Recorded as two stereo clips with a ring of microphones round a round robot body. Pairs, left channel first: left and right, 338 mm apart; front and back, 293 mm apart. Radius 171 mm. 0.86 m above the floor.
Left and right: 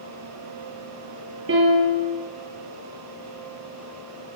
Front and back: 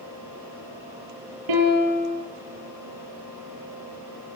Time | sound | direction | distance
1.5 | a piano | 145° right | 6.5 m